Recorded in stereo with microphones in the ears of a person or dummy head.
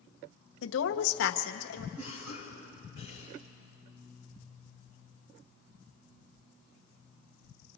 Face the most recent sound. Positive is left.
turn(degrees=-60)  # may be behind; listen again after turning